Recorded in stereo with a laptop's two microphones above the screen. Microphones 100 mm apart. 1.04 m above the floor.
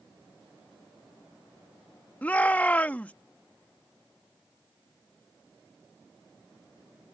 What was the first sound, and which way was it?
A shout, 20° left (ahead or behind).